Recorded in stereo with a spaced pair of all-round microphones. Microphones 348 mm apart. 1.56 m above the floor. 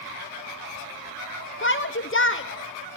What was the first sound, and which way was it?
A shout, 35° left (ahead or behind).